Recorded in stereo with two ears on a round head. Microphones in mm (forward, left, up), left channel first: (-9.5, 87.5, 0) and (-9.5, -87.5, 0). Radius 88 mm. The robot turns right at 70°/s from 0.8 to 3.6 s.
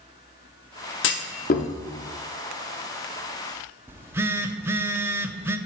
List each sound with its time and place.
1.0 s a clunk: 65° left (ahead or behind), 0.8 m; by 1.7 s 35° left (ahead or behind), 0.8 m
3.9 s a phone buzzing: 10° right (ahead or behind), 0.5 m